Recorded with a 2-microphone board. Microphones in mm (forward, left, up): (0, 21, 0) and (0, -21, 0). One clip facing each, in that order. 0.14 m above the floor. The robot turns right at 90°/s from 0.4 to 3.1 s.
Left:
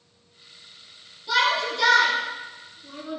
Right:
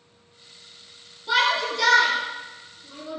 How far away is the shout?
About 1.6 m.